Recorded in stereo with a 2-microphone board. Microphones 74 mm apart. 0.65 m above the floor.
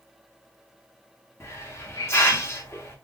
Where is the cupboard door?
No cupboard door in this recording.